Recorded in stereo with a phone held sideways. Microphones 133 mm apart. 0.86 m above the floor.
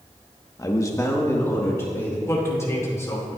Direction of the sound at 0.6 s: 25° left (ahead or behind).